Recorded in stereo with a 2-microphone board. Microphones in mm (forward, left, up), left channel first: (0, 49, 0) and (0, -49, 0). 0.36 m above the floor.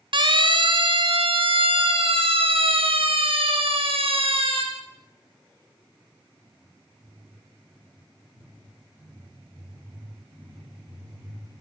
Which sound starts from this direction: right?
A siren, at 0.1 s.